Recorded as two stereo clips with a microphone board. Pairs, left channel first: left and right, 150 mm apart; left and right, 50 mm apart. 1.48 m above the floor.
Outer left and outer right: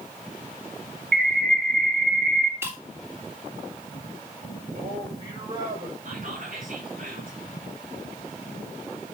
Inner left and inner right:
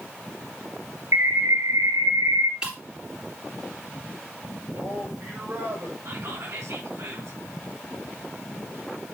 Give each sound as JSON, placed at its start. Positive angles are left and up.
{"t": 1.1, "sound": "a bird", "side_deg": -70, "distance_m": 2.0}
{"t": 2.6, "sound": "breaking glass", "side_deg": -15, "distance_m": 2.0}
{"t": 4.7, "sound": "a man speaking", "side_deg": -40, "distance_m": 6.5}
{"t": 6.0, "sound": "whispering", "side_deg": -60, "distance_m": 4.5}